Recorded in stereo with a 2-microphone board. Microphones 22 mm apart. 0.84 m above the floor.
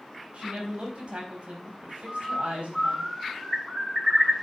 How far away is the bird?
About 5.5 m.